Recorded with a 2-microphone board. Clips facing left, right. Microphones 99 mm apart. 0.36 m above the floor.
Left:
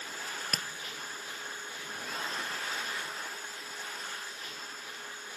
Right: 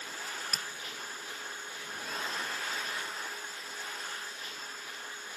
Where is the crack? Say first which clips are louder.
Left 2 dB; 65° left (ahead or behind), 1.4 m.